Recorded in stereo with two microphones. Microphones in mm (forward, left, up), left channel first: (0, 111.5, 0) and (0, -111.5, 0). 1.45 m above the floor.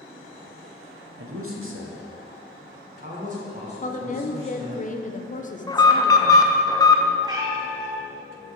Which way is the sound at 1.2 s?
80° right.